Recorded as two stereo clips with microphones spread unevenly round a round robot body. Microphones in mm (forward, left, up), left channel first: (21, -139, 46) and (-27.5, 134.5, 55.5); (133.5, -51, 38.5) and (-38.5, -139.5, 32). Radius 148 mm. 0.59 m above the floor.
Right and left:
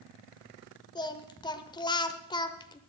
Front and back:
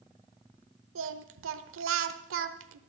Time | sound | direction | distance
0.9 | singing | 155° right | 0.9 m